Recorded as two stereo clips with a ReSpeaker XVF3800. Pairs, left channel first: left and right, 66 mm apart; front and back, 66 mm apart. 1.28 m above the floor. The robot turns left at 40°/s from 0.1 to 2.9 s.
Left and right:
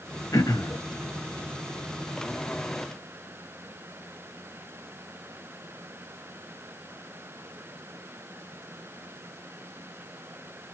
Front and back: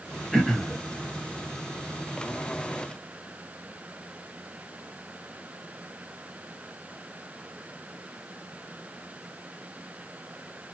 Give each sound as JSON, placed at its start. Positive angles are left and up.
{"t": 0.3, "sound": "throat clearing", "azimuth_deg": 85, "distance_m": 0.8}